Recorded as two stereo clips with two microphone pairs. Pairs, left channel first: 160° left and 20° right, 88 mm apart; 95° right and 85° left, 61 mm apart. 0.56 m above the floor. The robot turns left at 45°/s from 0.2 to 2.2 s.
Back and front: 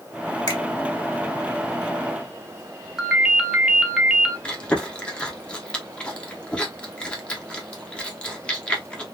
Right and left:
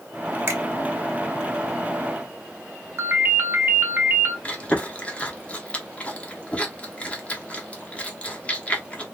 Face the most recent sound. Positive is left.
turn(degrees=-135)